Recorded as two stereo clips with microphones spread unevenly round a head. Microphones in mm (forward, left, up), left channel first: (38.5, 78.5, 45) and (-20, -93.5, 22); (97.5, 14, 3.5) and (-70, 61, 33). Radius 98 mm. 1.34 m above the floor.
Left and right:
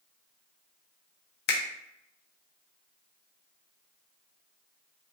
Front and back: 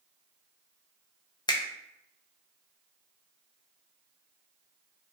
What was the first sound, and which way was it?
A finger snap, 55° left.